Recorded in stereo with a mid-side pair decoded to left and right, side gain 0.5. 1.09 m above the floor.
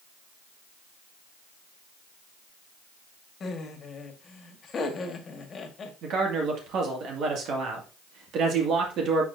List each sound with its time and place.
3.4 s laughter: 45° left, 1.6 m
6.0 s a man speaking: 65° right, 1.9 m